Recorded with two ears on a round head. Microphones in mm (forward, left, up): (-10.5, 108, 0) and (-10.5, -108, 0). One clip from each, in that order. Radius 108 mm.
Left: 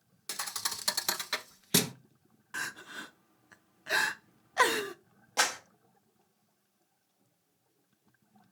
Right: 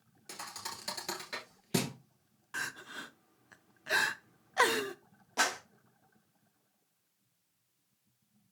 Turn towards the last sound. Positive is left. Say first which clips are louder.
# left 2 dB
turn(degrees=25)  # may be behind; listen again after turning